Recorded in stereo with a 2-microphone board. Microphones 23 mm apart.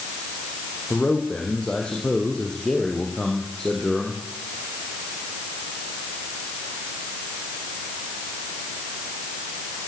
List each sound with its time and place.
0.9 s a man speaking: 55° left (ahead or behind), 6.5 m; by 4.2 s 20° left (ahead or behind), 6.5 m